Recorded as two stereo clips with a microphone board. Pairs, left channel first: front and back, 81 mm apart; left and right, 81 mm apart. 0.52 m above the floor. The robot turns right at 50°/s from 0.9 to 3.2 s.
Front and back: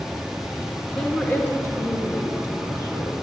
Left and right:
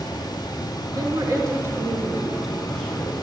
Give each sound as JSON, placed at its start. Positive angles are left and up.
{"t": 0.9, "sound": "a woman speaking", "azimuth_deg": -80, "distance_m": 1.7}